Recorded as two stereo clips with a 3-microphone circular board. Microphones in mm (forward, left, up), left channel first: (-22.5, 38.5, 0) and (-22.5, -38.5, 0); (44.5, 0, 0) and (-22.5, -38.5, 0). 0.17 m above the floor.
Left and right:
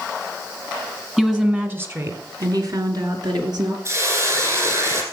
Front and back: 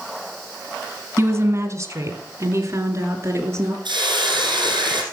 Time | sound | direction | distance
1.2 | a woman speaking | 170° right | 1.4 m
3.9 | a hiss | 135° right | 4.5 m